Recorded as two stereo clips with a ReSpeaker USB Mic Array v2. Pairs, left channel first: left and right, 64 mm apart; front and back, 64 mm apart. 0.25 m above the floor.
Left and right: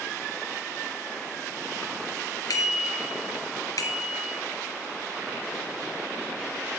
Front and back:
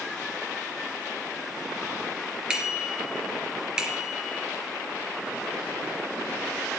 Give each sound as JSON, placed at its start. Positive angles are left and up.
{"t": 2.5, "sound": "a bicycle bell", "azimuth_deg": 105, "distance_m": 3.0}